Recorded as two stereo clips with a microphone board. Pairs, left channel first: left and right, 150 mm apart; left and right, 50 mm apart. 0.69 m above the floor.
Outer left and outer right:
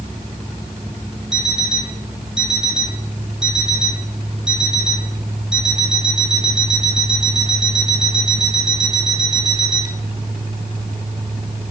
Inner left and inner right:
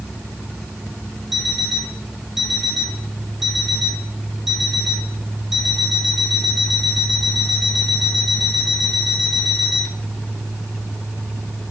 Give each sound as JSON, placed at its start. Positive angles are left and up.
{"t": 1.3, "sound": "an alarm clock", "side_deg": -5, "distance_m": 6.5}